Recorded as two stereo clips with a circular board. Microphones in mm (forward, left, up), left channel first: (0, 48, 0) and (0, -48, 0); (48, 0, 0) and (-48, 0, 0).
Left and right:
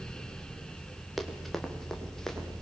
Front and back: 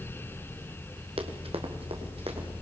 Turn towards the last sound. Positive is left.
turn(degrees=175)